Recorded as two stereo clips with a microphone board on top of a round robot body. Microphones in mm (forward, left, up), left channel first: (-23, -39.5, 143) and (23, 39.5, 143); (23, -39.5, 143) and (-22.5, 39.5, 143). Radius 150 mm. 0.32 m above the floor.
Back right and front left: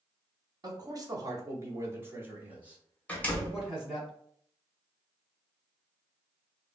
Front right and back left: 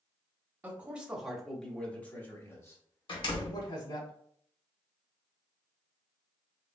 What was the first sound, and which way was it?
A man speaking, 60° left.